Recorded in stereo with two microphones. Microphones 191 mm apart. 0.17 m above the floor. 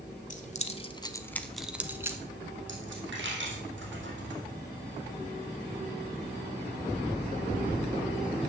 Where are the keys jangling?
40° left (ahead or behind), 0.9 m; by 2.2 s 15° right (ahead or behind), 1.1 m.